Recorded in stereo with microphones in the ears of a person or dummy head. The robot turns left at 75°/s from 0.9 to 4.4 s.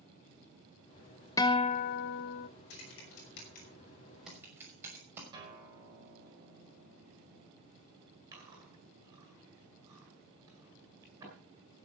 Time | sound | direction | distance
1.4 | a guitar | 155° left | 0.6 m
2.7 | typing on a keyboard | 65° left (ahead or behind) | 6 m
5.3 | a guitar | 25° right (ahead or behind) | 5 m
8.3 | chewing | 15° right (ahead or behind) | 9 m